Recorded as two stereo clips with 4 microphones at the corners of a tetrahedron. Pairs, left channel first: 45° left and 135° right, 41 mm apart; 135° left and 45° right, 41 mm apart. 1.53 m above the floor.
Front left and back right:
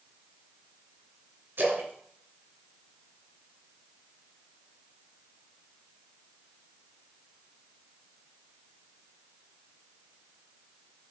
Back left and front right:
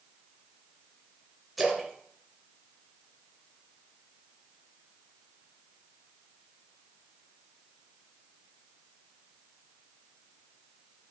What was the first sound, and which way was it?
A splash, 130° right.